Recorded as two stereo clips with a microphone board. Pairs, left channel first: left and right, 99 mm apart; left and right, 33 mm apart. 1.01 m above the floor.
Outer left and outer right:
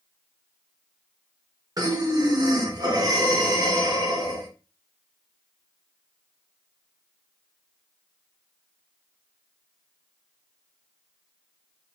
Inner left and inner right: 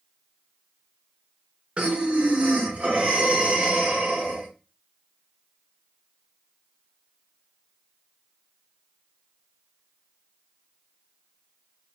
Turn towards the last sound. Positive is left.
turn(degrees=-40)  # may be behind; listen again after turning